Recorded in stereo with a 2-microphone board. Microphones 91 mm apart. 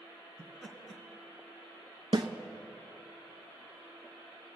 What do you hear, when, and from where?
0.4 s laughter: 5° left (ahead or behind), 1.8 m
2.1 s a snare drum: 55° right (ahead or behind), 0.8 m